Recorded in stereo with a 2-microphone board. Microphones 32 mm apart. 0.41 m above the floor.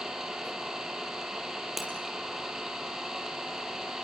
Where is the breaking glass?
5° right (ahead or behind), 5.5 m.